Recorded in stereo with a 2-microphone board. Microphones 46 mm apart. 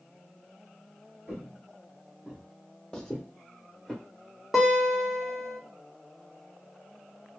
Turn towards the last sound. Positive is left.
turn(degrees=-5)  # may be behind; listen again after turning